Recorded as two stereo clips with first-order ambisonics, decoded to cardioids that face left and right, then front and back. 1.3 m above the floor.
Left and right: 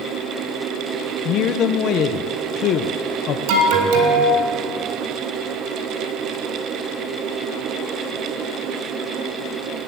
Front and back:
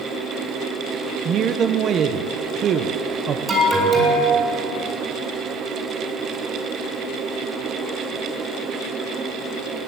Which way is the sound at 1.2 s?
130° left.